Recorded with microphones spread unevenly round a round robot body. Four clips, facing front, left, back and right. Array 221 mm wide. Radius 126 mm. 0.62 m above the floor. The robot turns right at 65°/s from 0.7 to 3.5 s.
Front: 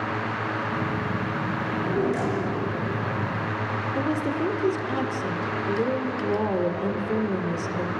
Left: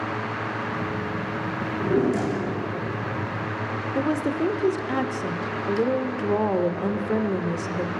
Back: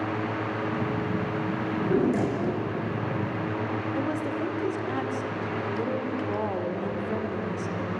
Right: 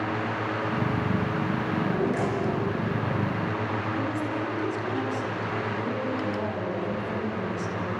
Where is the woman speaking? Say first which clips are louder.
Left 5 dB, front 5 dB; 65° left, 2 m.